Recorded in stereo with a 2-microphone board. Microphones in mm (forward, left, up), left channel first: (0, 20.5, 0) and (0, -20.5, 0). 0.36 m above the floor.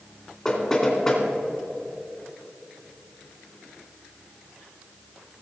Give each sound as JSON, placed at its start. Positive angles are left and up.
{"t": 0.5, "sound": "knocking", "side_deg": 20, "distance_m": 2.5}